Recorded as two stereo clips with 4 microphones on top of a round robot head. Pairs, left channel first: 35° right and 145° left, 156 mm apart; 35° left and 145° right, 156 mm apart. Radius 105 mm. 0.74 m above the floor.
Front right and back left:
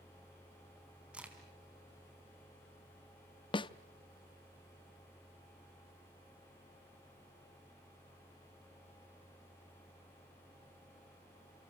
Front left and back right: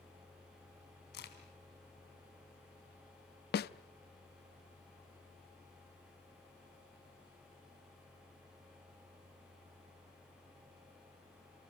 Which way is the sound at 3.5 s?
20° left.